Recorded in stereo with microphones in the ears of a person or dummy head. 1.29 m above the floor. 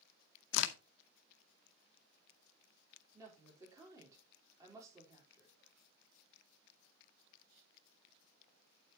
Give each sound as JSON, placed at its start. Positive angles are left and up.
{"t": 0.5, "sound": "a crack", "side_deg": 65, "distance_m": 0.7}
{"t": 3.1, "sound": "a woman speaking", "side_deg": -20, "distance_m": 4.0}